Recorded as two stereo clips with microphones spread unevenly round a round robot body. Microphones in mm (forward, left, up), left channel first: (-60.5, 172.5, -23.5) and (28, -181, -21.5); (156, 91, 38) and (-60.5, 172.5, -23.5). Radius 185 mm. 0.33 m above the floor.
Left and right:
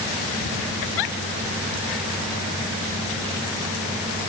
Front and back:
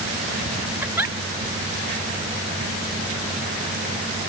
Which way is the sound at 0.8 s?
75° left.